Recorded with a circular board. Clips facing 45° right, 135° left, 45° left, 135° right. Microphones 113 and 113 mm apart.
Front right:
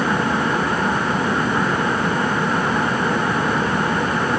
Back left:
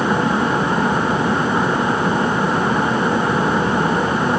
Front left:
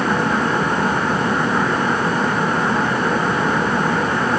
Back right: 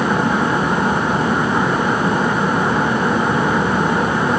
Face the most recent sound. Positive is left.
No sound to turn to.